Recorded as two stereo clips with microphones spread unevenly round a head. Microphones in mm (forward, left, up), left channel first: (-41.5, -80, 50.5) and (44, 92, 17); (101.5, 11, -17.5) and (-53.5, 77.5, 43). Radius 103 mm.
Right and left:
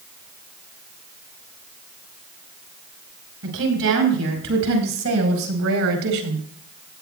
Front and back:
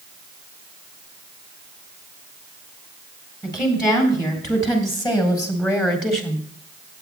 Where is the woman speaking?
45° left, 6.5 m; by 6.4 s 50° left, 4 m.